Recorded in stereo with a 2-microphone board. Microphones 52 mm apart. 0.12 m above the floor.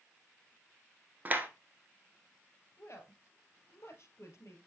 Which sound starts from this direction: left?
A woman speaking, at 2.8 s.